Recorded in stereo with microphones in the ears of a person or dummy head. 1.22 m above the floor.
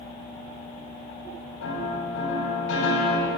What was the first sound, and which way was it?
A piano, 85° left.